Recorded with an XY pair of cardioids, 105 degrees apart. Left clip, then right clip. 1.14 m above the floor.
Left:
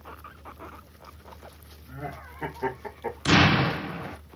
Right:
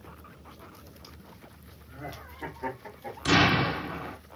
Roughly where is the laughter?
Ahead left.